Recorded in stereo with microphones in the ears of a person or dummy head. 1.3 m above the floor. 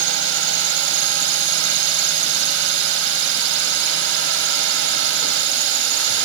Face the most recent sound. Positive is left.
turn(degrees=-70)  # may be behind; listen again after turning